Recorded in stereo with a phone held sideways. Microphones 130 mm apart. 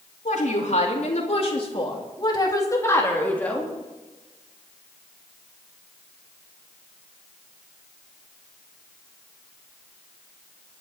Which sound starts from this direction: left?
A woman speaking, at 0.2 s.